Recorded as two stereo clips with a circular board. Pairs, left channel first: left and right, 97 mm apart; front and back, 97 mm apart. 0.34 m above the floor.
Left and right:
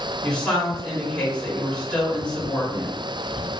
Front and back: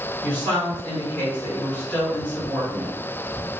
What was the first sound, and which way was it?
A woman speaking, 25° left.